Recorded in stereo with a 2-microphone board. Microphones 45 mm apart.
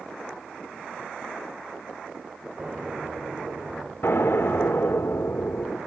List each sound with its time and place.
2.6 s an explosion: 20° right (ahead or behind), 3 m
4.0 s an explosion: 65° left (ahead or behind), 3 m